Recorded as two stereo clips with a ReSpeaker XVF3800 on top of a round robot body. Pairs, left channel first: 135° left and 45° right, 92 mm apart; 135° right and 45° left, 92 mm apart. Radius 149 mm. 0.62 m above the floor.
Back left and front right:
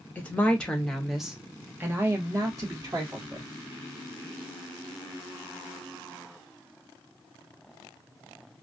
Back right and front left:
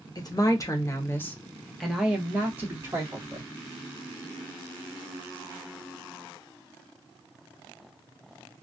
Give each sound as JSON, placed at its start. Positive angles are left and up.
{"t": 0.1, "sound": "a woman speaking", "azimuth_deg": -160, "distance_m": 1.3}